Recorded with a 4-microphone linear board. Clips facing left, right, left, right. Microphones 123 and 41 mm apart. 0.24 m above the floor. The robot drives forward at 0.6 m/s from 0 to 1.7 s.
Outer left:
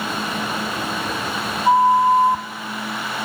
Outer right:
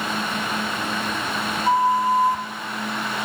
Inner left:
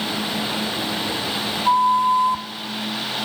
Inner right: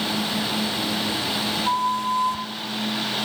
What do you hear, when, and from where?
1.6 s a flute: 25° left (ahead or behind), 1.1 m